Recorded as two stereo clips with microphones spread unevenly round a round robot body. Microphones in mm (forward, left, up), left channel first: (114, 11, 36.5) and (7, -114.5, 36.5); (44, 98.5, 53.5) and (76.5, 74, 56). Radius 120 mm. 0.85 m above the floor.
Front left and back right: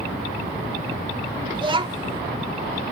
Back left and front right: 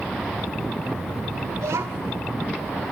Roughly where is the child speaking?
Right.